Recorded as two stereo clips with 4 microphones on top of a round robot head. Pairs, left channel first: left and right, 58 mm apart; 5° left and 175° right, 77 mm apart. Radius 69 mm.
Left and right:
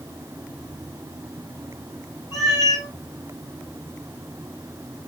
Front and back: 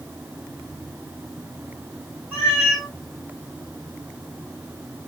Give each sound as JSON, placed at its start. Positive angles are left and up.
{"t": 2.3, "sound": "a cat meowing", "azimuth_deg": 115, "distance_m": 2.5}